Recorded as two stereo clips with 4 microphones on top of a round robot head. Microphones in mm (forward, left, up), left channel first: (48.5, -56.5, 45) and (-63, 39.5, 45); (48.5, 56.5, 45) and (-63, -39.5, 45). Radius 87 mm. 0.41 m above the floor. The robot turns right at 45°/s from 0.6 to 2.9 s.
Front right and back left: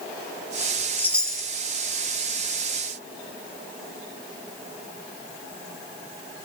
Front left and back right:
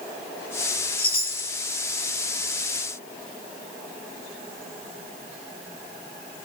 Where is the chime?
25° left, 1.0 m; by 1.5 s 50° left, 1.0 m.